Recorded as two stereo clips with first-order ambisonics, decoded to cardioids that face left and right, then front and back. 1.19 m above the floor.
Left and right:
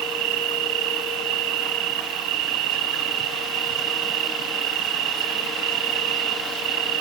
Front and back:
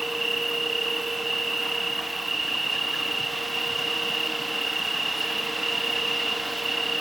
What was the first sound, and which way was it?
An insect, 95° right.